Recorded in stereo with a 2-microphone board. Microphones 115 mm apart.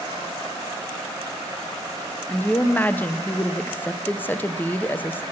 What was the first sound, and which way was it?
A woman speaking, 15° left (ahead or behind).